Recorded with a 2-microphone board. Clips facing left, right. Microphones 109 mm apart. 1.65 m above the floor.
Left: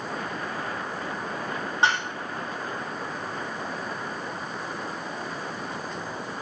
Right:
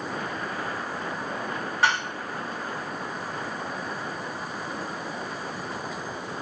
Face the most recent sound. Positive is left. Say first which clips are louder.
# even
turn(degrees=25)  # may be behind; listen again after turning